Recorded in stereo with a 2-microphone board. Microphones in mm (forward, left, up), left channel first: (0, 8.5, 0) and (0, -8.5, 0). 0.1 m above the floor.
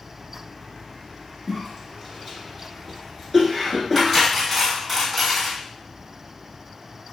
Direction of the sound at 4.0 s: Centre (ahead or behind).